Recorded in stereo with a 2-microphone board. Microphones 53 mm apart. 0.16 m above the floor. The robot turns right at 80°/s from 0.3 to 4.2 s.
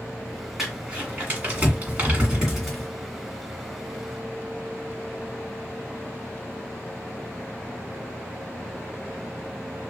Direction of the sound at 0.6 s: 5° right (ahead or behind).